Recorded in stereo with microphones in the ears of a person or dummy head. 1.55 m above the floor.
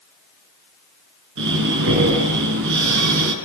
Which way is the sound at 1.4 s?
65° right (ahead or behind).